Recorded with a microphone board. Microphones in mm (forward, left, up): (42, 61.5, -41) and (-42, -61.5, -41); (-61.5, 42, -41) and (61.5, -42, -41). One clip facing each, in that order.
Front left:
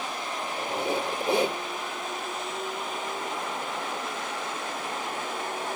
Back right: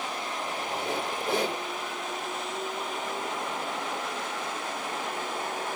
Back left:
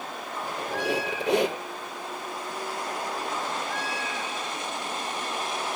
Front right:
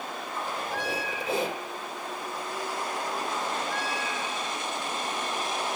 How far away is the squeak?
About 4.5 m.